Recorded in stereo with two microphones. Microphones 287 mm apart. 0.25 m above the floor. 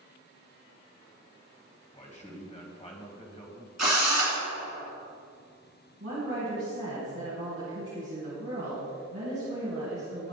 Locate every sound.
1.9 s a man speaking: 25° left (ahead or behind), 1.5 m
3.8 s a drill: 65° right (ahead or behind), 2.5 m
6.0 s a woman speaking: 50° right (ahead or behind), 2 m